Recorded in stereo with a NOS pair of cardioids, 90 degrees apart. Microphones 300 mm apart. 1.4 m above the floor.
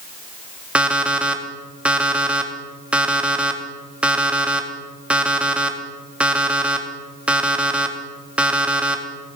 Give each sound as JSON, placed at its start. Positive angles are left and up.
{"t": 0.8, "sound": "an alarm clock", "azimuth_deg": -5, "distance_m": 1.5}